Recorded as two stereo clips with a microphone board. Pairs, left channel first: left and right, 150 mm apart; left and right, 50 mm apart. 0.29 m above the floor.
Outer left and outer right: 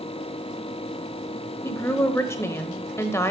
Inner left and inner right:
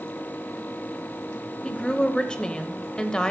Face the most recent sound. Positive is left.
turn(degrees=20)  # may be behind; listen again after turning